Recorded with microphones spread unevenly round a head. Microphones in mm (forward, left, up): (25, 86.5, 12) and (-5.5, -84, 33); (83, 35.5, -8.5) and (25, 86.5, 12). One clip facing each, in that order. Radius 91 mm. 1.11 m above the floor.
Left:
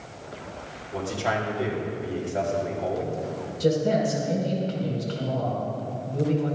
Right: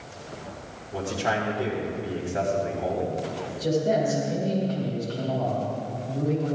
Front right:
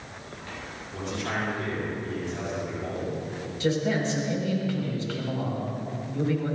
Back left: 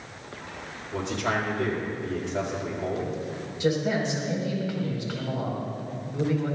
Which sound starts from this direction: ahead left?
A man speaking, at 3.6 s.